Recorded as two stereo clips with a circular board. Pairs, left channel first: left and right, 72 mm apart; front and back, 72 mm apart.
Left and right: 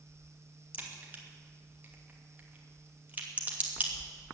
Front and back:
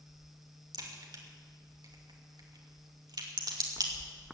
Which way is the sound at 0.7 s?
155° right.